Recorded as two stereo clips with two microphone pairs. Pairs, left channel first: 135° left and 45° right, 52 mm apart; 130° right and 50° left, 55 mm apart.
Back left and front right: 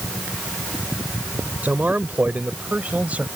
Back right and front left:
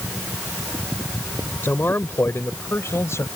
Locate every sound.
1.6 s a man speaking: 90° right; by 3.3 s 100° right